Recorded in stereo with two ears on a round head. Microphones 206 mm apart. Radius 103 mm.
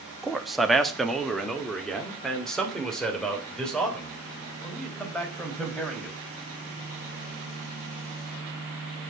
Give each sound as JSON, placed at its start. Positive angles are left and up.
{"t": 0.2, "sound": "a man speaking", "side_deg": 0, "distance_m": 1.0}